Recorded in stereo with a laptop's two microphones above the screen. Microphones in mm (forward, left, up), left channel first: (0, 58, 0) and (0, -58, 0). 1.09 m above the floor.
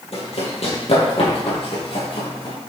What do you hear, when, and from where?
0.1 s running footsteps: 60° left (ahead or behind), 2 m; by 2.5 s 50° left (ahead or behind), 3 m